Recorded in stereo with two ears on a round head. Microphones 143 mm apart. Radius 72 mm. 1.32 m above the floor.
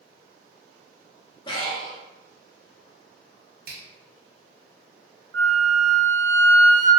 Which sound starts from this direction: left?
Breathing, at 1.5 s.